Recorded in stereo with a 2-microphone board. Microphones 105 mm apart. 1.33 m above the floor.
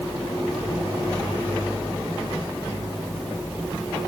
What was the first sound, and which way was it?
Only background noise.